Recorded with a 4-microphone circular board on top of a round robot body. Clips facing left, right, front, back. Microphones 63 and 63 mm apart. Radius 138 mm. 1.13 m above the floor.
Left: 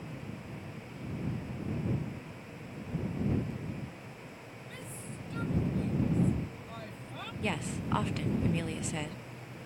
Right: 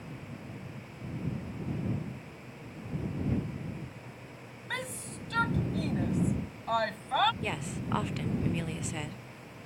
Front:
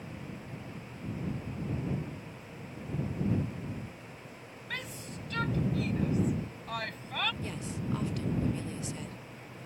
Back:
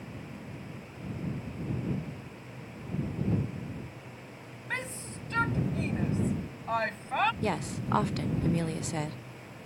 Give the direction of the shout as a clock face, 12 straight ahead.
4 o'clock.